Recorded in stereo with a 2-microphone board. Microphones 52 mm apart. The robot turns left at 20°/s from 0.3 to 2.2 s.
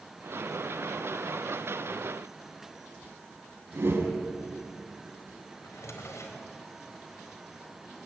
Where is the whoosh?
50° right (ahead or behind), 4.5 m.